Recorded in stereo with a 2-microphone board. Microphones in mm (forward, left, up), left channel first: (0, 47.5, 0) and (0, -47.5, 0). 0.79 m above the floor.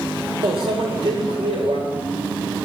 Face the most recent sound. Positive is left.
turn(degrees=-75)  # may be behind; listen again after turning